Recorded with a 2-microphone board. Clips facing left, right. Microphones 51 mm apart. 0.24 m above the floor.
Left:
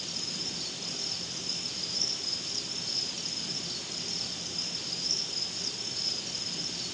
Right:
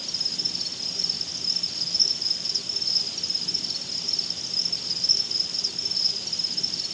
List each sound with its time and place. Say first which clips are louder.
0.0 s an insect: right 2 dB; 20° left (ahead or behind), 1.7 m